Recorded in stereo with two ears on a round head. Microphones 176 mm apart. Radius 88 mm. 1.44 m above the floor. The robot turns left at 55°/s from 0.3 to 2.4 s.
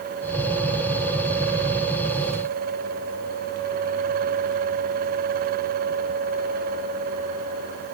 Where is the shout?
I don't hear a shout.